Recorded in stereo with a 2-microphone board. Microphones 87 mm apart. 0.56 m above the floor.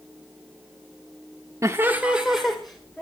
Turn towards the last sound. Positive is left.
turn(degrees=5)  # may be behind; listen again after turning